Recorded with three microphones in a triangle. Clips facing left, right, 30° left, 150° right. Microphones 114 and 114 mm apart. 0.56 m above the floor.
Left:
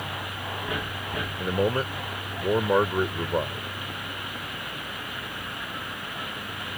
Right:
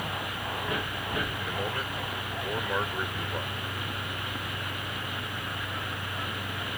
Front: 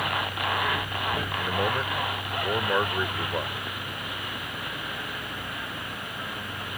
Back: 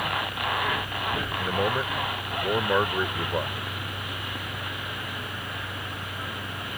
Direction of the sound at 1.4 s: 130° left.